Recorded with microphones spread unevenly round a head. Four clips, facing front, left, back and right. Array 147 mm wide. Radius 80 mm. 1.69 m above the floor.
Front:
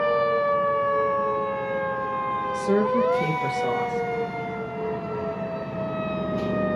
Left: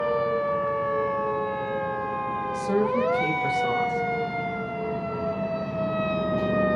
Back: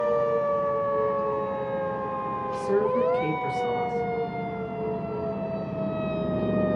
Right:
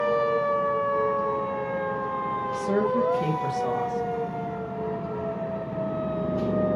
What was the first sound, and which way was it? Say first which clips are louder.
A woman speaking: left 1 dB, front 1 dB; 15° right.